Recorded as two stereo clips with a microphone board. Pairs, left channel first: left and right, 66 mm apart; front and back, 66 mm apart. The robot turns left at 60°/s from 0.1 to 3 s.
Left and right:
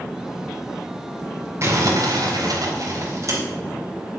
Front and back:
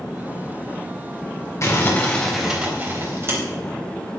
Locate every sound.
1.6 s crumpling: 45° right, 4 m; by 3.4 s 125° right, 4 m